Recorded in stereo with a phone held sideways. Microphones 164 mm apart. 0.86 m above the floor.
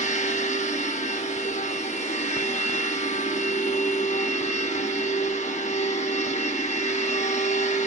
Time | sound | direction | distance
0.0 | a machine running | 45° left (ahead or behind) | 0.8 m